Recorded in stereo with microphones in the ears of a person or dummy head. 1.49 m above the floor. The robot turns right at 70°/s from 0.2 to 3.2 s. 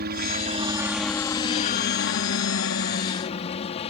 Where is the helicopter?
65° right; by 3.9 s 145° left.